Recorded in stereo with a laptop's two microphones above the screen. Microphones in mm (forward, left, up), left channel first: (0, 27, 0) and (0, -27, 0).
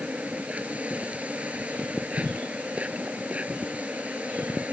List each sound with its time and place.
0.0 s an insect: 25° right (ahead or behind)